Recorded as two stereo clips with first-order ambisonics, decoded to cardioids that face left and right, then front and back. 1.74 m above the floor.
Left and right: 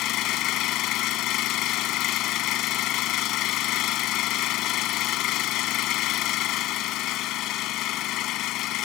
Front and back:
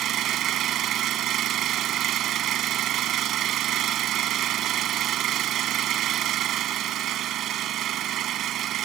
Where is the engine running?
130° left.